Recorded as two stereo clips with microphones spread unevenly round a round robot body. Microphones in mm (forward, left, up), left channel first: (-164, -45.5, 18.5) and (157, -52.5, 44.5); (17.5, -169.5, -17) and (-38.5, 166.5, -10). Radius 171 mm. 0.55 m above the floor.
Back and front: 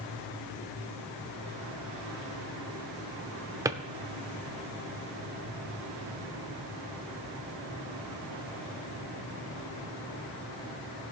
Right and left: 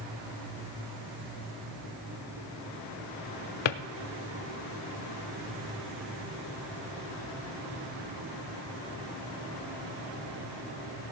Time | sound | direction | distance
3.6 | a drawer | 85° right | 0.7 m